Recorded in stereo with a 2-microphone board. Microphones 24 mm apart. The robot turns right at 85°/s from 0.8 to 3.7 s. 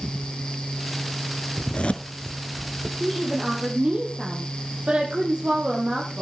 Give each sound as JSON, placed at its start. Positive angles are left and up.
{"t": 1.6, "sound": "a zipper", "side_deg": 50, "distance_m": 0.8}
{"t": 3.0, "sound": "a woman speaking", "azimuth_deg": 165, "distance_m": 4.0}